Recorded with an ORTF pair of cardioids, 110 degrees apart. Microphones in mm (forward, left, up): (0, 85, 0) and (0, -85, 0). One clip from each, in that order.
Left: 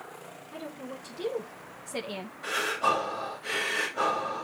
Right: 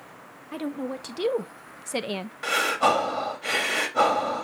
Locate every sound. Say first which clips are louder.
0.5 s a woman speaking: right 9 dB; 70° right, 1.7 m; by 2.4 s 30° right, 0.9 m
2.4 s breathing: right 5 dB; 65° right, 2.5 m